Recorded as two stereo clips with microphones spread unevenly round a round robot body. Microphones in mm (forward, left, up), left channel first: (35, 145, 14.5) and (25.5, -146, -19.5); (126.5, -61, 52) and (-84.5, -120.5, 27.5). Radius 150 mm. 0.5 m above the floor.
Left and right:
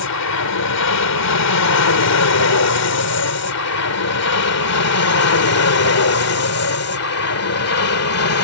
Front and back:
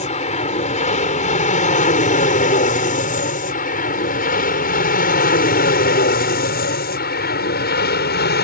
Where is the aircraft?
75° left; by 8.4 s 55° left.